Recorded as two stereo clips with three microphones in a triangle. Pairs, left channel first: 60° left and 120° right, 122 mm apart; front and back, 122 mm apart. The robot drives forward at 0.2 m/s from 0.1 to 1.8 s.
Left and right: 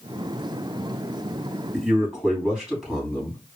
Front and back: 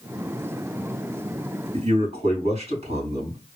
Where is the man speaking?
155° left, 3.5 m.